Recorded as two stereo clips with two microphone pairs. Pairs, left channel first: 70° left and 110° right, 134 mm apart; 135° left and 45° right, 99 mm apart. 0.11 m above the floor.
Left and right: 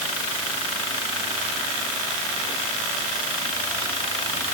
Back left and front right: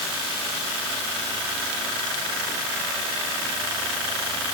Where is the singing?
No singing in this recording.